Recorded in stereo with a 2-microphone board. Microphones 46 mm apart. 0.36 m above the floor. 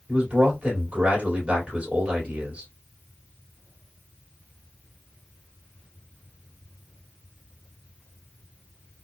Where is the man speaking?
30° right (ahead or behind), 1.9 m.